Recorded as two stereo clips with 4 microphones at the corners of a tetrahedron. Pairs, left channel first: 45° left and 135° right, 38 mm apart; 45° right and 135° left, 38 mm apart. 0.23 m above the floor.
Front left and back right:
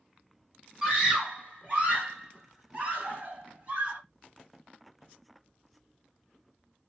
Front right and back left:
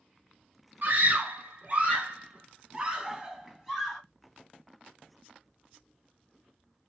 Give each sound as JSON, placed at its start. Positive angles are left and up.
{"t": 0.8, "sound": "a scream", "azimuth_deg": 170, "distance_m": 2.5}